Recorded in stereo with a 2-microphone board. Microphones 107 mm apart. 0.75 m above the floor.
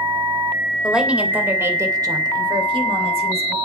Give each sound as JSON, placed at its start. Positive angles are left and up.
{"t": 0.8, "sound": "a woman speaking", "side_deg": -5, "distance_m": 3.0}